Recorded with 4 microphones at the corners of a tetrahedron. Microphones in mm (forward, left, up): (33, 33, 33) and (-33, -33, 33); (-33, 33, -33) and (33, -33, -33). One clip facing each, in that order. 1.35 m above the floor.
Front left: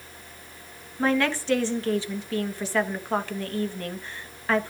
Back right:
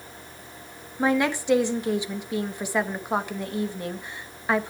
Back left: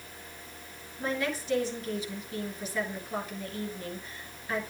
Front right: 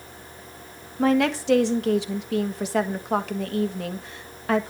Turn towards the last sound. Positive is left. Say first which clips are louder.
# back right 1 dB, front right 11 dB
turn(degrees=-60)